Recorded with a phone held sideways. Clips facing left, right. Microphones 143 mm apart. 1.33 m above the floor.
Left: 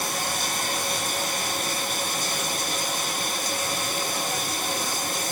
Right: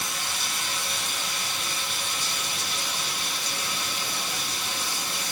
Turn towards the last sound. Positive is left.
turn(degrees=45)  # may be behind; listen again after turning